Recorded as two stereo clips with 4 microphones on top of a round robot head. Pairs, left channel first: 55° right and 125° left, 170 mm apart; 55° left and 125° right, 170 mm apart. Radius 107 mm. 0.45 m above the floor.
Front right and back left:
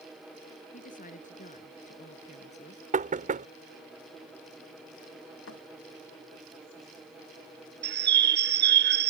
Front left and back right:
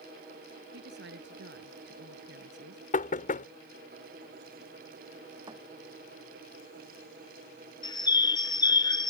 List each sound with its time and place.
0.7 s a woman speaking: 100° right; by 2.8 s 110° right
2.9 s knocking: 90° left
5.5 s a thud: 55° right
7.8 s a bird: 125° left